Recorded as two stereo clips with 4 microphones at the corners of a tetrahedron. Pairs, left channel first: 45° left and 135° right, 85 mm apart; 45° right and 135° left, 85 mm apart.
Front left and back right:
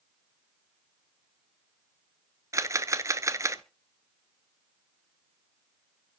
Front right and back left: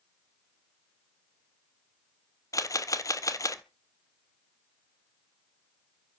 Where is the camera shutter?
85° right, 0.7 m.